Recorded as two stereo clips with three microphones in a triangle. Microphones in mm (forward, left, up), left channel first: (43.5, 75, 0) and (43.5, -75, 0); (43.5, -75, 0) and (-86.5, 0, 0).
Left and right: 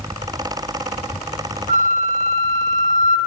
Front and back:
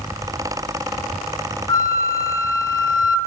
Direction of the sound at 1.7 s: 90° right.